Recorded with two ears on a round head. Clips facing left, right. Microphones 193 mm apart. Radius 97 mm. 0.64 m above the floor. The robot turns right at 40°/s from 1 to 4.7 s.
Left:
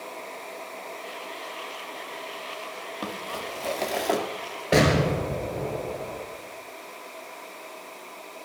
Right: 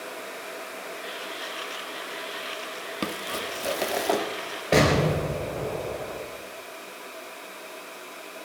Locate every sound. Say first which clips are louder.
3.0 s crumpling: right 3 dB; 45° right, 1.0 m; by 4.2 s 5° left, 1.0 m
4.7 s an explosion: even; 5° left (ahead or behind), 2.5 m